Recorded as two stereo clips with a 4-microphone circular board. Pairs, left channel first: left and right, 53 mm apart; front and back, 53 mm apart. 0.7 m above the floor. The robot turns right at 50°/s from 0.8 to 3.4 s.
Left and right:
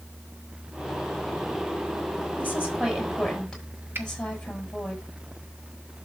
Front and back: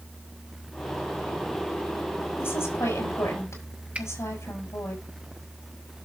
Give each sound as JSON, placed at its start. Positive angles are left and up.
{"t": 2.4, "sound": "a woman speaking", "azimuth_deg": -45, "distance_m": 6.0}
{"t": 4.0, "sound": "a finger snap", "azimuth_deg": -120, "distance_m": 1.2}